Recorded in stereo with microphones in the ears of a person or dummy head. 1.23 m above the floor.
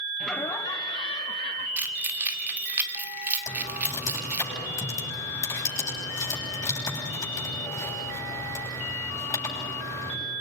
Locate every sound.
0.2 s laughter: centre (ahead or behind), 0.6 m; by 1.7 s 30° left (ahead or behind), 1.7 m
1.8 s keys jangling: 15° right (ahead or behind), 2.0 m
3.5 s typing on a keyboard: 15° left (ahead or behind), 9.5 m